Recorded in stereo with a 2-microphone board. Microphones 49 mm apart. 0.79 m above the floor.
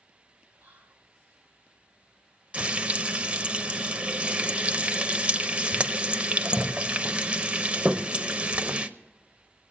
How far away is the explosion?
No explosion in this recording.